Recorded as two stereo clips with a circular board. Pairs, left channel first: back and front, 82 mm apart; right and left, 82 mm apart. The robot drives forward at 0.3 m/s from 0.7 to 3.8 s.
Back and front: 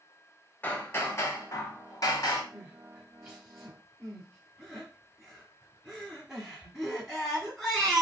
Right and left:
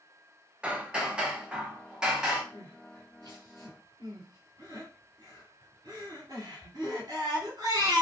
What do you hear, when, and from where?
0.6 s hammering: 150° left, 0.6 m; by 2.4 s 170° left, 1.0 m
2.5 s crying: 75° left, 1.7 m; by 8.0 s 90° left, 1.6 m